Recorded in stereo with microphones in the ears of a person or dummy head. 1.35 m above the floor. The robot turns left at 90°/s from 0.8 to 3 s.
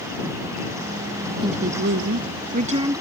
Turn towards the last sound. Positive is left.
turn(degrees=-170)